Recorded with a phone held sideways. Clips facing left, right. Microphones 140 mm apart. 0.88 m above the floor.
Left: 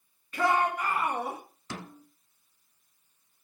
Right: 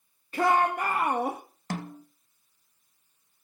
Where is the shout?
35° right (ahead or behind), 1.3 m; by 1.4 s 65° right (ahead or behind), 1.3 m.